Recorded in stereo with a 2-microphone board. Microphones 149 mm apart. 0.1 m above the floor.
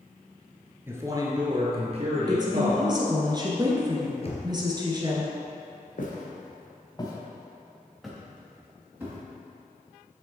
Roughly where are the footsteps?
Left.